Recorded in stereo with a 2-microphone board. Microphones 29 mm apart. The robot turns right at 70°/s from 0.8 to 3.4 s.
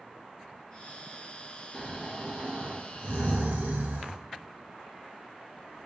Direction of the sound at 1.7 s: 165° left.